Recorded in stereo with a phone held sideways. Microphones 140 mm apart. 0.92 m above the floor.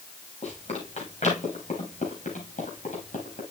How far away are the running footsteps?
About 6 m.